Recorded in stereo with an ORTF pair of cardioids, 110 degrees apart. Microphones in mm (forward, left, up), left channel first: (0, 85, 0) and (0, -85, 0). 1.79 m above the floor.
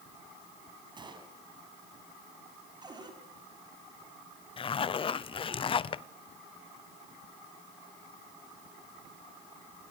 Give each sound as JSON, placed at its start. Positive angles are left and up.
{"t": 1.0, "sound": "a gunshot", "azimuth_deg": -25, "distance_m": 5.0}
{"t": 2.8, "sound": "a cupboard door", "azimuth_deg": -25, "distance_m": 6.5}
{"t": 4.6, "sound": "a zipper", "azimuth_deg": 30, "distance_m": 0.7}